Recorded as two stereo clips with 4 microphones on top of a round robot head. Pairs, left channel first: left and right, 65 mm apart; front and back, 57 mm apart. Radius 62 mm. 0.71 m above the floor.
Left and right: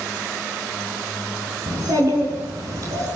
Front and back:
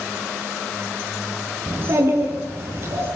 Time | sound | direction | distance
1.7 | a child speaking | 125° right | 6 m